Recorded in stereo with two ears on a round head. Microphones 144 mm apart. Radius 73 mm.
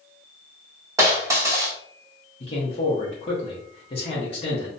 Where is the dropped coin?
20° right (ahead or behind), 1.1 m.